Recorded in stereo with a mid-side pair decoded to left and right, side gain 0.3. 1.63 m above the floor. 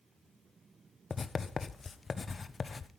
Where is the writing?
55° left, 1.3 m.